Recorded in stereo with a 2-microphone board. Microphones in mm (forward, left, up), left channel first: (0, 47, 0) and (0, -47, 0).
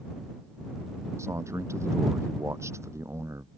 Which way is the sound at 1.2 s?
30° right (ahead or behind).